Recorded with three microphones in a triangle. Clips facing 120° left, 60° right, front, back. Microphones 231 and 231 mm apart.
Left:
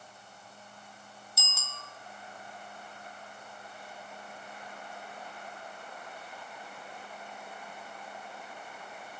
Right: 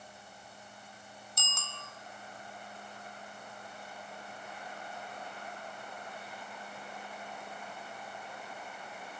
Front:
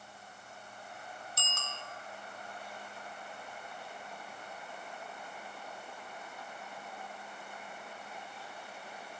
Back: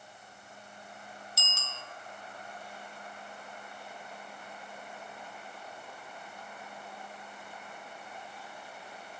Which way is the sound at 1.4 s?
35° left.